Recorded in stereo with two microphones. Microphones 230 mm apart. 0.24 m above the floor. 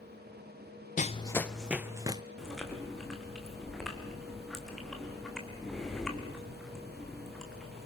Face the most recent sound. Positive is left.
turn(degrees=0)  # may be behind; listen again after turning